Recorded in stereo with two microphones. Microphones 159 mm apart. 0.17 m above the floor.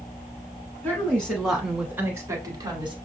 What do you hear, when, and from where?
0.8 s a woman speaking: 10° left (ahead or behind), 1.9 m; by 3.0 s 30° right (ahead or behind), 1.6 m